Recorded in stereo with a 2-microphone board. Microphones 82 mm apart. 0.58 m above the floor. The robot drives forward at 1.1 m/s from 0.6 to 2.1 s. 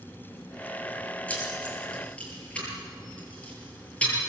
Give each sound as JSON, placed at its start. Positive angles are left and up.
{"t": 1.3, "sound": "keys jangling", "side_deg": 15, "distance_m": 7.5}